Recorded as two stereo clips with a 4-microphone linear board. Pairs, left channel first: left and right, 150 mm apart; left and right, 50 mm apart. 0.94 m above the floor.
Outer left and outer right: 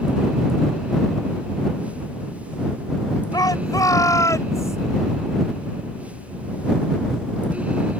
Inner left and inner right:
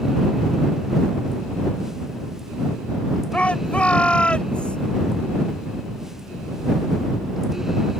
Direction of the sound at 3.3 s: 25° left (ahead or behind).